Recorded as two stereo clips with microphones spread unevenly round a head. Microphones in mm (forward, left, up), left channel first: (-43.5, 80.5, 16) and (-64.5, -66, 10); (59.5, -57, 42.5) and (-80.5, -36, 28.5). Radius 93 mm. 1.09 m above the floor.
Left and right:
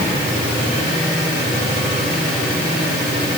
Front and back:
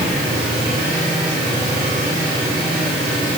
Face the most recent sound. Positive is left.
No sound to turn to.